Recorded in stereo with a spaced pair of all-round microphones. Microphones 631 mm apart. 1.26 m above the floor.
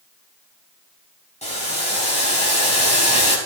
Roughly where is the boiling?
Centre.